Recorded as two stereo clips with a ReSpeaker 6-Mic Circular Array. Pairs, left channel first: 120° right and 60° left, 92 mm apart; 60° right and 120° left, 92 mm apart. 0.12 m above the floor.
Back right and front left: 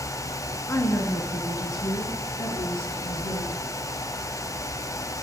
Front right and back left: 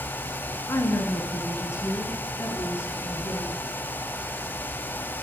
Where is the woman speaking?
85° right, 1.2 m; by 3.6 s 120° right, 2.5 m.